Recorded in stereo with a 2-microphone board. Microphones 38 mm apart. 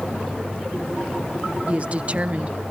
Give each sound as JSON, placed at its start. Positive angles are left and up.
{"t": 1.7, "sound": "a woman speaking", "side_deg": -35}